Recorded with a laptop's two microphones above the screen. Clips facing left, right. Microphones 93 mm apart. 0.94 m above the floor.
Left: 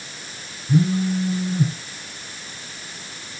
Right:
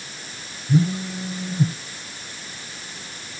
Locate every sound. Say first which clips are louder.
0.7 s a phone buzzing: left 2 dB; centre (ahead or behind), 1.8 m